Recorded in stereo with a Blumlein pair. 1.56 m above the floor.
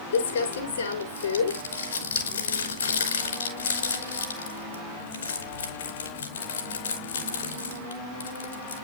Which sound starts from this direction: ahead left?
Crumpling, at 0.1 s.